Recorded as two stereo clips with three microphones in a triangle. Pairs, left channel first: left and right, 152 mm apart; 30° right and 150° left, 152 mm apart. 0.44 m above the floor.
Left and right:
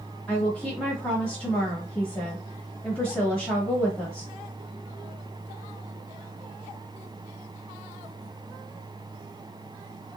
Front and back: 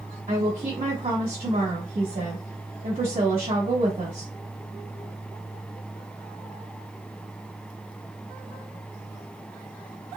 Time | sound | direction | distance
0.3 | a woman speaking | 175° left | 2.0 m